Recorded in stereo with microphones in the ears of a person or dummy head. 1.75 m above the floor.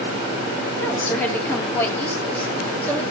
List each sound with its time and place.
0.8 s a woman speaking: 10° left (ahead or behind), 4.5 m